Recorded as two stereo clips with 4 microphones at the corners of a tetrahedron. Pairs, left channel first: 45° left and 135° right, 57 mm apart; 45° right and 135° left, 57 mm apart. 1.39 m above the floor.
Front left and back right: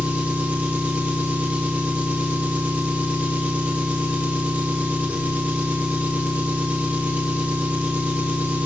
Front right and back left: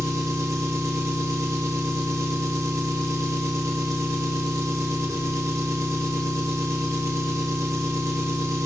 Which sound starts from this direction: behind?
An engine running, at 0.0 s.